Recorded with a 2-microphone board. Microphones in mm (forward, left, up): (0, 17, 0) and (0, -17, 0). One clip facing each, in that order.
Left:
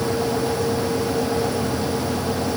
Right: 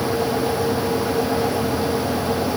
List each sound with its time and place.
Only background noise.